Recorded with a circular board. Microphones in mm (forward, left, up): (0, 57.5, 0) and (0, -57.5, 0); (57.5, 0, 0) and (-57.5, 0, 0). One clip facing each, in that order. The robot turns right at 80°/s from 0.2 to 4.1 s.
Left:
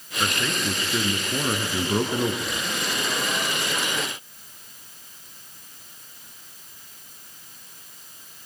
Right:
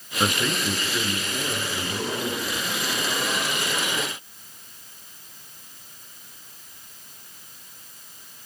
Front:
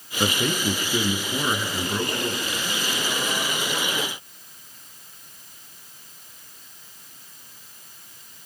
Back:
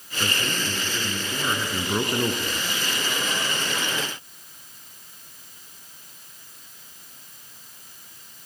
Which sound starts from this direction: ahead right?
A man speaking, at 0.2 s.